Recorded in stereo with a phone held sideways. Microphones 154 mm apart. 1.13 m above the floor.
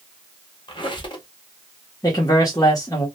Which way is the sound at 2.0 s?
25° left (ahead or behind).